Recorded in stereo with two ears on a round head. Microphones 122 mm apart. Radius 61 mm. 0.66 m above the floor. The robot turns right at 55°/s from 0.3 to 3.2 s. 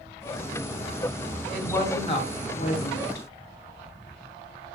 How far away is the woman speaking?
About 4 m.